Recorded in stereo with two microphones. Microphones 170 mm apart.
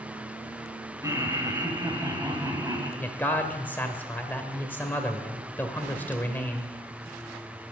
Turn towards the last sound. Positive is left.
turn(degrees=10)  # may be behind; listen again after turning